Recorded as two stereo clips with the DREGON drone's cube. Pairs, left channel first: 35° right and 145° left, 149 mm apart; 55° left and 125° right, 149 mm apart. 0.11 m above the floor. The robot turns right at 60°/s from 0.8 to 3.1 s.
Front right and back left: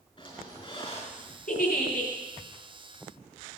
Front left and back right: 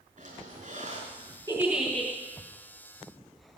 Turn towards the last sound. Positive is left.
turn(degrees=40)